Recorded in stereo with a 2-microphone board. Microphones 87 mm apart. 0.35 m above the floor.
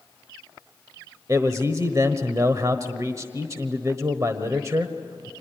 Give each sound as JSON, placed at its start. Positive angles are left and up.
{"t": 1.3, "sound": "a man speaking", "side_deg": -40, "distance_m": 1.2}